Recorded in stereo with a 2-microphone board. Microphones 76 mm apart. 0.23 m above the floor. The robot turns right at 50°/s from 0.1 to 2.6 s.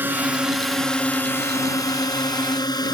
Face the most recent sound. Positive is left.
turn(degrees=95)